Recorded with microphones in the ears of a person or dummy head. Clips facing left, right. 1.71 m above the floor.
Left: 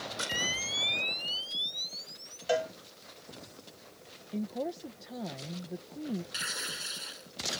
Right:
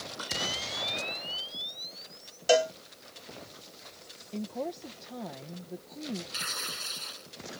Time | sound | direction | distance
0.2 | a camera shutter | 35° left (ahead or behind) | ?
2.5 | a cowbell | 50° right (ahead or behind) | ?
4.3 | a woman speaking | centre (ahead or behind) | ?
6.3 | tearing paper | 10° left (ahead or behind) | ?